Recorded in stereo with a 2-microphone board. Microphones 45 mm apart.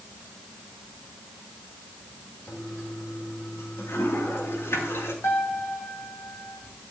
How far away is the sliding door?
I don't hear a sliding door.